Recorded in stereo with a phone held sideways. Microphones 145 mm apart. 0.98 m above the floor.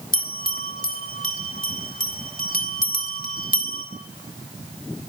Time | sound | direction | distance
0.1 | a bell | 65° left (ahead or behind) | 2.5 m